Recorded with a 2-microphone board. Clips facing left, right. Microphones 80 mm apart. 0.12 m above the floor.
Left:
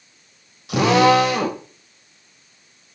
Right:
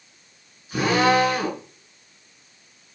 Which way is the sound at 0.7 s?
70° left (ahead or behind).